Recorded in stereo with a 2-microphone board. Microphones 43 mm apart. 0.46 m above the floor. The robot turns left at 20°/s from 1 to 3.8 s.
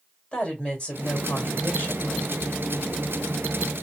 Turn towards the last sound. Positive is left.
turn(degrees=95)